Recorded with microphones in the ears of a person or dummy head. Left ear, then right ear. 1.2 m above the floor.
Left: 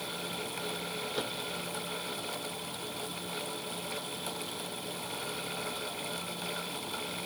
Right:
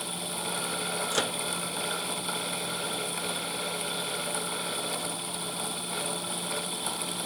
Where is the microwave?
60° right (ahead or behind).